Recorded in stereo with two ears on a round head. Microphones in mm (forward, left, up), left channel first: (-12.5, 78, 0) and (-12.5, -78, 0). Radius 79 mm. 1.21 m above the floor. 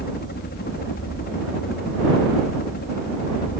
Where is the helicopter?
55° left (ahead or behind).